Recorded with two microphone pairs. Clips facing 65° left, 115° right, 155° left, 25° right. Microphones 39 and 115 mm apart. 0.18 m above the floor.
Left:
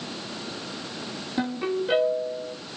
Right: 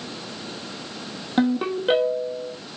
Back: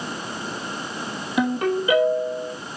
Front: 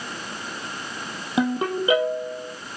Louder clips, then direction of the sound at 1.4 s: Right 5 dB, back 1 dB; 90° right.